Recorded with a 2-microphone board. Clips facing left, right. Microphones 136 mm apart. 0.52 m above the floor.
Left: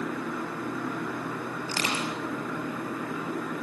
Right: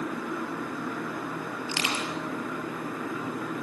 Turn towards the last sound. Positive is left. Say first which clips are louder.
# left 1 dB
turn(degrees=40)  # may be behind; listen again after turning